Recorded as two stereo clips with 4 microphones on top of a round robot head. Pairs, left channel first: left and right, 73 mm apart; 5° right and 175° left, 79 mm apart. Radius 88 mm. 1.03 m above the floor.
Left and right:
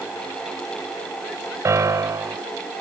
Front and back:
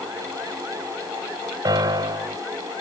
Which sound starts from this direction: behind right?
A piano, at 1.6 s.